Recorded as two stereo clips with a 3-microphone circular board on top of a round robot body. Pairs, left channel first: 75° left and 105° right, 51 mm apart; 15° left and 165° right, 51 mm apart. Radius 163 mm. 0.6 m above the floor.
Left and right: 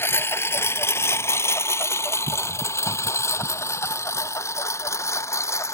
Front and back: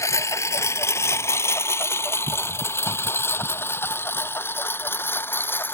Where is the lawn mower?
35° left; by 5.7 s 60° left.